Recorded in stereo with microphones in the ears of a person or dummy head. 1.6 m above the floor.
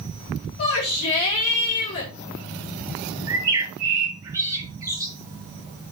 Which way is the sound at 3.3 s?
20° right (ahead or behind).